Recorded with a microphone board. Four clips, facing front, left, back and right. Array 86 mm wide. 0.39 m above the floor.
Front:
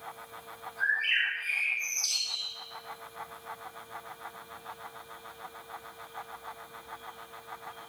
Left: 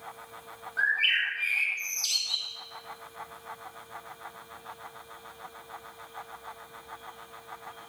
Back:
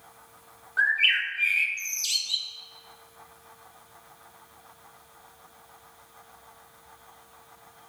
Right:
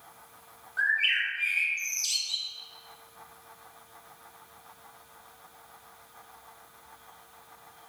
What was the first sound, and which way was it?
A bird, 175° left.